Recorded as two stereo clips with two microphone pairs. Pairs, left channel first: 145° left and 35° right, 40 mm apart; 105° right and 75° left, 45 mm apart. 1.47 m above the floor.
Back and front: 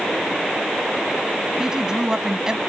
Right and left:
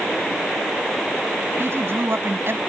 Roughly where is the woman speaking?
Ahead left.